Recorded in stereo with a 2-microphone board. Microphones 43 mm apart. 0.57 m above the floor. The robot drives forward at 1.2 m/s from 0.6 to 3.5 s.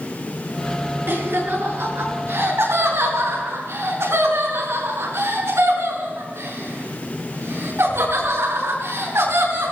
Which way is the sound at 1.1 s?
55° right (ahead or behind).